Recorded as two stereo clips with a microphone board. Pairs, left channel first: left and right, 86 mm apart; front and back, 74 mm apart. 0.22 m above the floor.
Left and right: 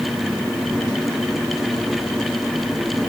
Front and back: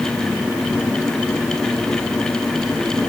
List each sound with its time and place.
Only background noise.